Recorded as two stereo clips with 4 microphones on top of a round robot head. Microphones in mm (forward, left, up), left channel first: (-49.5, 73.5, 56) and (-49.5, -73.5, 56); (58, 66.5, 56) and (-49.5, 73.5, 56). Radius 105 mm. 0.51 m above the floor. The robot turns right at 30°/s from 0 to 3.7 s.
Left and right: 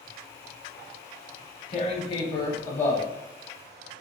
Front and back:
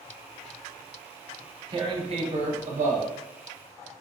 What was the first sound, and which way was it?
Tearing paper, 130° left.